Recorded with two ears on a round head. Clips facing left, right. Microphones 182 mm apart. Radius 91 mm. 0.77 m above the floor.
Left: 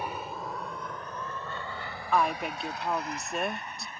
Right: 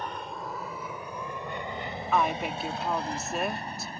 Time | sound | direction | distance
0.0 | an aircraft | 10° left (ahead or behind) | ?
2.1 | a woman speaking | 5° right (ahead or behind) | ?